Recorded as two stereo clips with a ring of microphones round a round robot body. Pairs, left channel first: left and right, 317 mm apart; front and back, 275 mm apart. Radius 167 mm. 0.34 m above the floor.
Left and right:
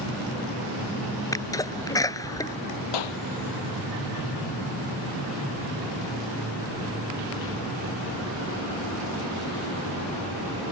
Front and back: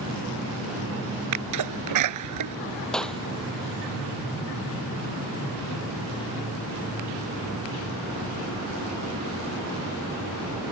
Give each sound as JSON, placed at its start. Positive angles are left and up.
{"t": 1.3, "sound": "a sneeze", "azimuth_deg": 170}
{"t": 2.9, "sound": "a clap", "azimuth_deg": 90}